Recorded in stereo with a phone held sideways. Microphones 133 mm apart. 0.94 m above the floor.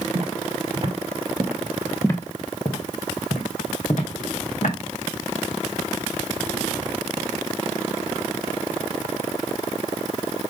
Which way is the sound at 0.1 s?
50° right (ahead or behind).